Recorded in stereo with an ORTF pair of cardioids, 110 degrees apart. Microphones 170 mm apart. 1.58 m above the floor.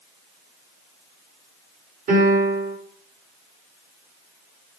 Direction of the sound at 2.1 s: 55° right.